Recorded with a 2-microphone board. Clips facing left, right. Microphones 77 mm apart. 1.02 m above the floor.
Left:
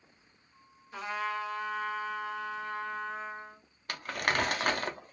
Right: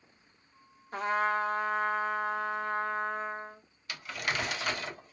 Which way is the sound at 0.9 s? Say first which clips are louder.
Right 6 dB; 45° right (ahead or behind).